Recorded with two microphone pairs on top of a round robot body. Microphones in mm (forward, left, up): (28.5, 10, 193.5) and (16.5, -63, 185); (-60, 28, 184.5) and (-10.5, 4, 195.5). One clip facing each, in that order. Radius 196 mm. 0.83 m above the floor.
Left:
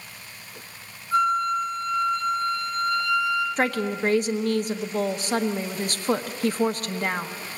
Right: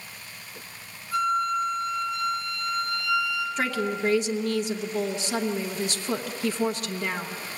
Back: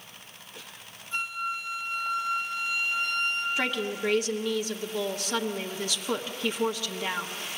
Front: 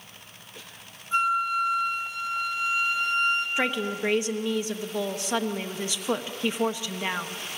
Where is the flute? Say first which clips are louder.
Left 3 dB, front 8 dB; 25° left, 4 m.